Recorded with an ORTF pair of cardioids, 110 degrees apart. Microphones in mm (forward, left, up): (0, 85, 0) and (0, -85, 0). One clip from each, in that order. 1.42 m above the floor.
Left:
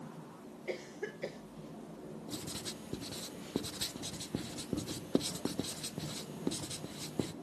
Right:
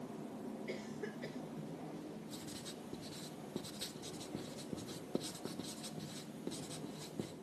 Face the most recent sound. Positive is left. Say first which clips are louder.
# left 6 dB
turn(degrees=35)